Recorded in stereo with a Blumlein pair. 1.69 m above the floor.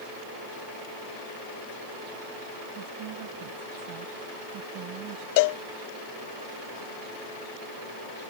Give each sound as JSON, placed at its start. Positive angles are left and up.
{"t": 2.8, "sound": "a woman speaking", "azimuth_deg": -40}
{"t": 5.4, "sound": "a cowbell", "azimuth_deg": 50}